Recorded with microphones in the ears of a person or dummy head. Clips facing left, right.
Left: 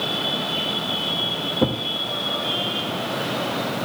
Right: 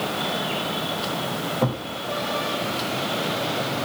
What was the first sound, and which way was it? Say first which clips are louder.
A thud: left 4 dB; 25° left (ahead or behind).